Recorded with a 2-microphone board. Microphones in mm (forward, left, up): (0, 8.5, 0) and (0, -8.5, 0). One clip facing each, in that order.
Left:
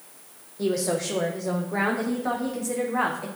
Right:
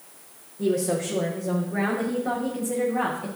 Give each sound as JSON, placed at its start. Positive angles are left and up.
{"t": 0.6, "sound": "a woman speaking", "side_deg": 70, "distance_m": 4.5}